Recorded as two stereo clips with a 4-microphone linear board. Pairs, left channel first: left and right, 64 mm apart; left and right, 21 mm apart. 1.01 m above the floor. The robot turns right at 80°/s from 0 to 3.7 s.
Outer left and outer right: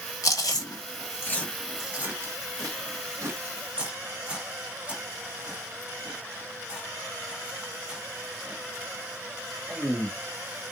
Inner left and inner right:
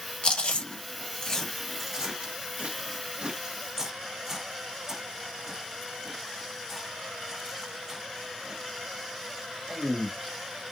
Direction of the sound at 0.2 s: 60° left (ahead or behind).